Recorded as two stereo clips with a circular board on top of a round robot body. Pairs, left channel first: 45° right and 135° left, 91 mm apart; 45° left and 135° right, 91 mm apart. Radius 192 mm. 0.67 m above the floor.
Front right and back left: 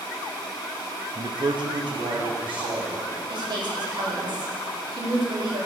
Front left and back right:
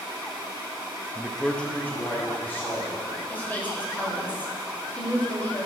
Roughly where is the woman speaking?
Behind left.